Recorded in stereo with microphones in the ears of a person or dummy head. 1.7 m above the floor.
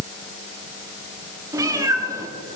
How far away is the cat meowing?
About 1.9 m.